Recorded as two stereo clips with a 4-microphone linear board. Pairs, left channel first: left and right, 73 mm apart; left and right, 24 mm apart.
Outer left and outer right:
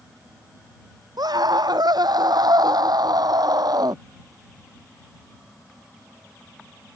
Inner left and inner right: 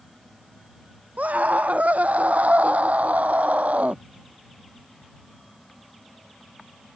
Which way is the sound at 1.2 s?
75° right (ahead or behind).